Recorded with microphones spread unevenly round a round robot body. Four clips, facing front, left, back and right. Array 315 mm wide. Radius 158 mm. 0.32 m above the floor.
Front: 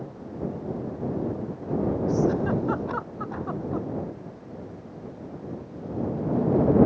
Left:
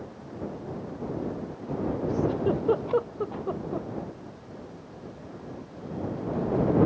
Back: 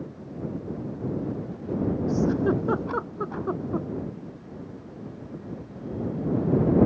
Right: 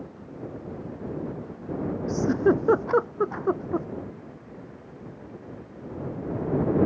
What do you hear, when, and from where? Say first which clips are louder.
2.1 s a giggle: right 6 dB, back 1 dB; 100° right